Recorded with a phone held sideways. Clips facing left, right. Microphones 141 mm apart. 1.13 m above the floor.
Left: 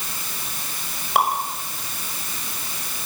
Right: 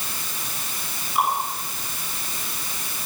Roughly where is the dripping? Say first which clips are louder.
Left 3 dB; left.